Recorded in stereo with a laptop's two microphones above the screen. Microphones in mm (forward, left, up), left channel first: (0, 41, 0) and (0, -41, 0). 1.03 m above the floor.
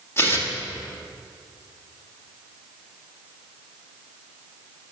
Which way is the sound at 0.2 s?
30° left (ahead or behind).